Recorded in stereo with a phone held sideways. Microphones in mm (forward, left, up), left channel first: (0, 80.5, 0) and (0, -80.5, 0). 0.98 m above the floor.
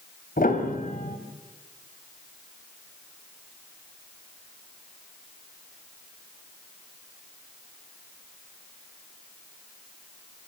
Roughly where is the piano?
Left.